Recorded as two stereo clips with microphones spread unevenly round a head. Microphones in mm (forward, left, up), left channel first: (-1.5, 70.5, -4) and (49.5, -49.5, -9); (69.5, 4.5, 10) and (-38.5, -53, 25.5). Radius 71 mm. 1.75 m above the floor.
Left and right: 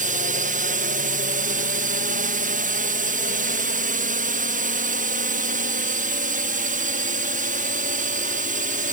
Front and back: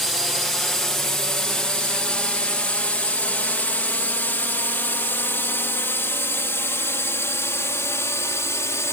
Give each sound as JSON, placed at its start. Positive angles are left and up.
{"t": 0.0, "sound": "a drone", "azimuth_deg": -60}